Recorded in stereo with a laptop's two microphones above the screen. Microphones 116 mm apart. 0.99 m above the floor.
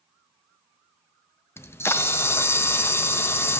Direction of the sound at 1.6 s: 20° left (ahead or behind).